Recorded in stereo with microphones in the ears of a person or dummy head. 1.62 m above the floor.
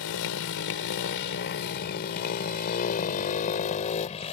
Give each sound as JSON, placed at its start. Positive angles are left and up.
{"t": 0.0, "sound": "a motorcycle", "side_deg": 70}